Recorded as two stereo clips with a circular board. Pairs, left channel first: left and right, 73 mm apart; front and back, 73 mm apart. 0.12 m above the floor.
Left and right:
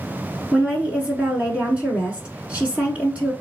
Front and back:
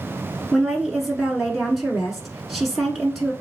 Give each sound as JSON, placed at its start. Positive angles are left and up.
{"t": 0.5, "sound": "a woman speaking", "azimuth_deg": -100, "distance_m": 1.1}